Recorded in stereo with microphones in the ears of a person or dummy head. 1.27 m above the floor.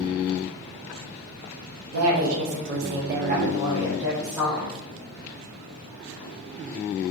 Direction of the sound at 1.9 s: 80° right.